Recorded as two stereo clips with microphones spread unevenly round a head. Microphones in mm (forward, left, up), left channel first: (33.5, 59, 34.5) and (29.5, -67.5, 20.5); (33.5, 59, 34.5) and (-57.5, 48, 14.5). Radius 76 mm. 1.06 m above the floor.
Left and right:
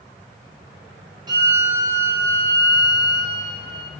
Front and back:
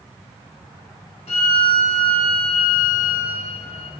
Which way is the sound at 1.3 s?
40° right.